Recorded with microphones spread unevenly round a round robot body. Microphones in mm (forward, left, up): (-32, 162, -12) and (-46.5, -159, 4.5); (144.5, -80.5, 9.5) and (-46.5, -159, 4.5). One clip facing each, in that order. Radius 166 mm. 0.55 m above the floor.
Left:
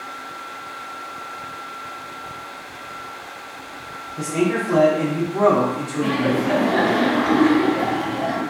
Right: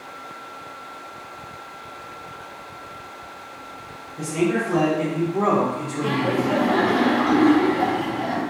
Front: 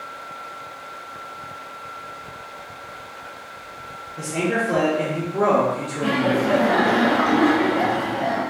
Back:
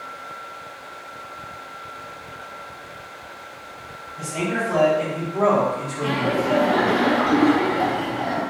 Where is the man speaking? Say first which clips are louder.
Left 1 dB, front 3 dB; 60° left, 1.0 m.